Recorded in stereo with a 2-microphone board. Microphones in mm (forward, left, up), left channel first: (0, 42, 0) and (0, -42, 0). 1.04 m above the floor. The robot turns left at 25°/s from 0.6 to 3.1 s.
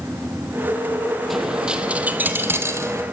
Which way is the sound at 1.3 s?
Straight ahead.